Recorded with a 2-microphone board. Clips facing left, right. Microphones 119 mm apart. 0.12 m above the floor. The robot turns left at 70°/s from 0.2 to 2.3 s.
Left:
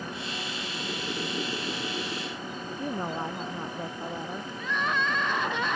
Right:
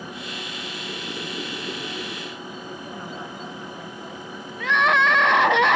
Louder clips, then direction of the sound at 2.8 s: Left 4 dB; 40° left (ahead or behind).